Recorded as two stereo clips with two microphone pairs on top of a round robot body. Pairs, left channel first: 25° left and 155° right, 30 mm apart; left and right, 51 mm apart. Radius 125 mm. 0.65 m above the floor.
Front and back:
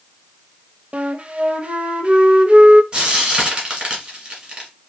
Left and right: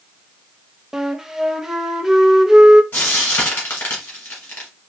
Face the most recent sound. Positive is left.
turn(degrees=150)